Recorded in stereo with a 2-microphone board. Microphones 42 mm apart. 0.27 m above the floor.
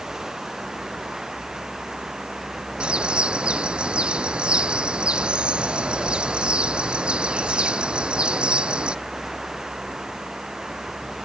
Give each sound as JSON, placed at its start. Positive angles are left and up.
{"t": 0.0, "sound": "running water", "side_deg": -15}
{"t": 2.8, "sound": "a bird", "side_deg": -20}